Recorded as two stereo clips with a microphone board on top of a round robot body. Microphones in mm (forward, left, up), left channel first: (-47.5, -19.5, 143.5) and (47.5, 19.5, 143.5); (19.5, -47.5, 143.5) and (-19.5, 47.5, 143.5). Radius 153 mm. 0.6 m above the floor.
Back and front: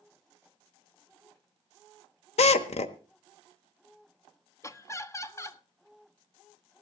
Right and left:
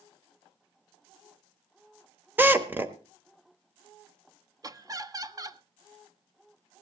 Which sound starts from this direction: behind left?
Laughter, at 4.6 s.